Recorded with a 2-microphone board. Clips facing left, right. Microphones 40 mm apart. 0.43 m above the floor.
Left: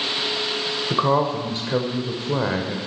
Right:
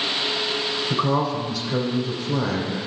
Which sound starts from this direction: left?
A woman speaking, at 0.9 s.